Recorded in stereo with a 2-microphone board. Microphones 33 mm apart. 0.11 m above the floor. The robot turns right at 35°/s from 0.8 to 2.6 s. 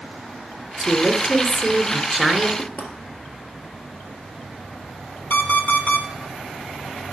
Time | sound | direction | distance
0.8 | a woman speaking | 5° right (ahead or behind) | 1.4 m
2.6 | knocking | 55° left (ahead or behind) | 1.8 m
5.3 | an alarm clock | 65° left (ahead or behind) | 1.8 m